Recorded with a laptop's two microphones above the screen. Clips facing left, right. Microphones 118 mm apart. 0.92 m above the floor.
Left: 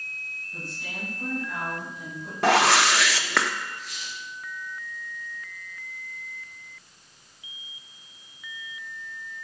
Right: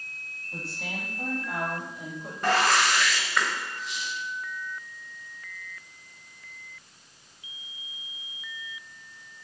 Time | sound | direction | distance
0.5 | a woman speaking | 75° right (ahead or behind) | 5 m
2.4 | a whoosh | 85° left | 0.9 m
3.8 | a squeak | 20° right (ahead or behind) | 3.5 m